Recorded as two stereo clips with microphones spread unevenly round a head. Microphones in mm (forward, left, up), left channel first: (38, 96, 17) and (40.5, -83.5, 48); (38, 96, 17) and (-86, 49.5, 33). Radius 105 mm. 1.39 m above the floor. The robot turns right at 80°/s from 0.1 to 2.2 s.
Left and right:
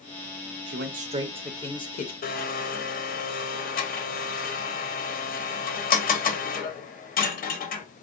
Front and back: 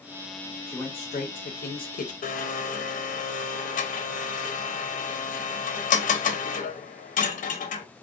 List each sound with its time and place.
0.7 s a man speaking: 65° right, 0.6 m; by 2.1 s 55° left, 0.6 m
2.2 s a blender: 45° left, 0.6 m